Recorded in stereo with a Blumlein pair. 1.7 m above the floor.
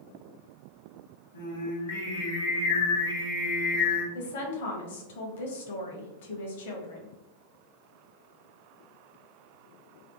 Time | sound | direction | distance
1.3 | singing | 70° left | 1.0 m
4.2 | a woman speaking | 55° left | 0.7 m